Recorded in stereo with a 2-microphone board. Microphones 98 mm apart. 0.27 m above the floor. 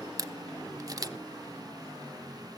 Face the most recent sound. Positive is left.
turn(degrees=-35)  # may be behind; listen again after turning